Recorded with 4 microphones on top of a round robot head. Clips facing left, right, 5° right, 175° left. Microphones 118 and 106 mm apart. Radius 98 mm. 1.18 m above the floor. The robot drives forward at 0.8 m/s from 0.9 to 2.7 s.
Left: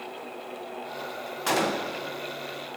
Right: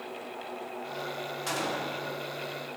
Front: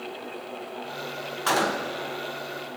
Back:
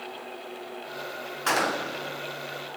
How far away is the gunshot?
About 1.2 m.